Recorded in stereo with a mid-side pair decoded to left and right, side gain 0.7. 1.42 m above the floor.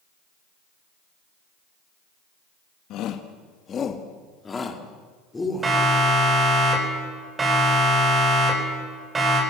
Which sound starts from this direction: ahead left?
A shout, at 2.9 s.